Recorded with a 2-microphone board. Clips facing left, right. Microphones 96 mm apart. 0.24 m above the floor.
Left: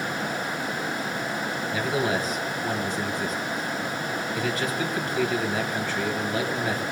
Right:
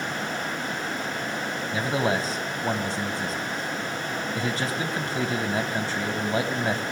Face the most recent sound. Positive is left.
turn(degrees=-35)  # may be behind; listen again after turning